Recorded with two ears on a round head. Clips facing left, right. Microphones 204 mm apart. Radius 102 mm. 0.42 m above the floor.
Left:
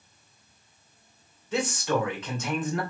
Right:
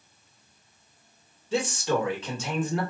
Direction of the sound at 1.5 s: 30° right (ahead or behind).